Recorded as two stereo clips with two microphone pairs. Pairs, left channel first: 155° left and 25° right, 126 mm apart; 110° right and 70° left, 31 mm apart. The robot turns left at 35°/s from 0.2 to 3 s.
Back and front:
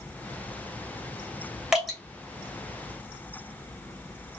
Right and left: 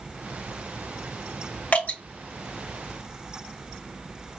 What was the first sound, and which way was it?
Dripping, 110° right.